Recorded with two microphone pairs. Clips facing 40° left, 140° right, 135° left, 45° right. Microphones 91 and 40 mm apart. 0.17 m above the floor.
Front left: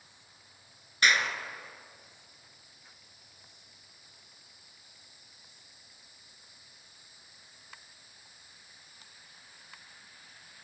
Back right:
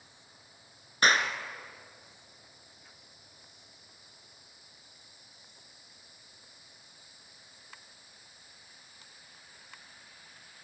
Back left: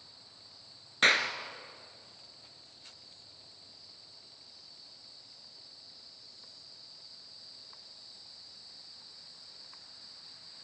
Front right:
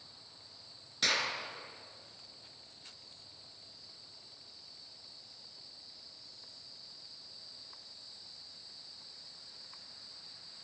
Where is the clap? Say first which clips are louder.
Back right 1 dB, back left 7 dB; 175° left, 1.9 m.